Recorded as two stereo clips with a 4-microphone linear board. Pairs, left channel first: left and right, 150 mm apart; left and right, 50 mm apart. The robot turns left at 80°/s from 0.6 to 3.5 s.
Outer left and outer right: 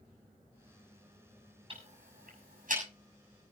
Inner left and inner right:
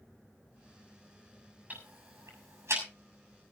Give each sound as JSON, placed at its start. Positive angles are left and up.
{"t": 1.7, "sound": "ticking", "side_deg": -35, "distance_m": 6.5}